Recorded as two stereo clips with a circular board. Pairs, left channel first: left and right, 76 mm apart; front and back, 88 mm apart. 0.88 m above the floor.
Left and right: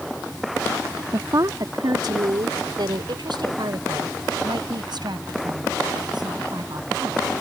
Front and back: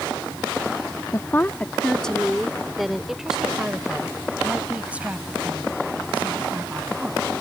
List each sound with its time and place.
1.1 s a woman speaking: 55° right; by 7.3 s 110° right